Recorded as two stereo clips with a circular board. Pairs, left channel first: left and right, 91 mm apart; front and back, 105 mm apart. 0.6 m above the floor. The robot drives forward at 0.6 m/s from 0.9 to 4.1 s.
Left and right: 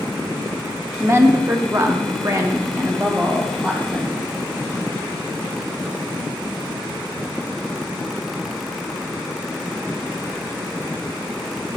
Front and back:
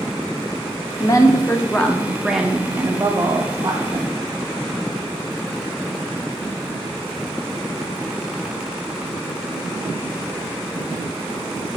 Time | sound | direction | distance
1.0 | a woman speaking | 35° right | 1.2 m